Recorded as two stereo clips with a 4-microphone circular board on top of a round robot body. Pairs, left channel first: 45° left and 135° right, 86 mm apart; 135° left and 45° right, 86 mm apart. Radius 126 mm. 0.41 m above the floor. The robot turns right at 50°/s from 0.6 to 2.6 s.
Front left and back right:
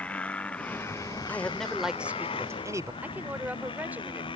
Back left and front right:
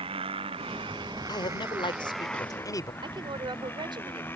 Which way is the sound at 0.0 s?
30° right.